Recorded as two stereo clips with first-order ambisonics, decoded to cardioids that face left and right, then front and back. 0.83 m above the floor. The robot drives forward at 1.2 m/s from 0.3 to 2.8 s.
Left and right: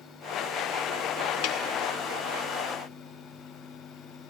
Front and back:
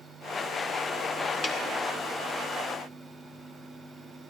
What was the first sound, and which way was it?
A snare drum, 65° left.